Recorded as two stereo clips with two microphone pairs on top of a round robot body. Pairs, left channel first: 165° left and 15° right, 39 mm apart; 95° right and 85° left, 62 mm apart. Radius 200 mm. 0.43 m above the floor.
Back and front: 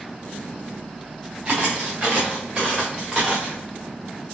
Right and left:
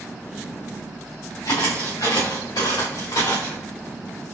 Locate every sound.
1.4 s footsteps: 85° right, 2 m; by 3.6 s 105° right, 3 m